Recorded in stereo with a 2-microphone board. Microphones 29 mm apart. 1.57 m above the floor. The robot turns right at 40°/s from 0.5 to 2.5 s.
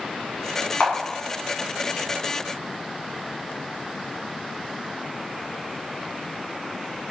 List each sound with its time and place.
0.8 s a camera shutter: 75° left (ahead or behind), 1.3 m; by 0.9 s 70° left (ahead or behind), 1.3 m